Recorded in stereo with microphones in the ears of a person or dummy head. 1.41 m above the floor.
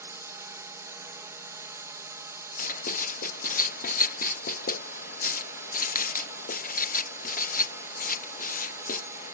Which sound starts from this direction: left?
Writing, at 2.6 s.